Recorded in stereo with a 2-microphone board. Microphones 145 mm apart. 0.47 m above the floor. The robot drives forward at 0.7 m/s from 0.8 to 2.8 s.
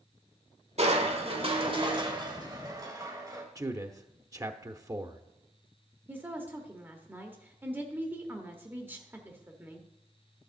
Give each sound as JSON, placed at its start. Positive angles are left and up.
{"t": 0.8, "sound": "crushing", "side_deg": -50, "distance_m": 1.3}
{"t": 3.5, "sound": "a man speaking", "side_deg": -25, "distance_m": 0.7}
{"t": 6.1, "sound": "a woman speaking", "side_deg": -15, "distance_m": 1.1}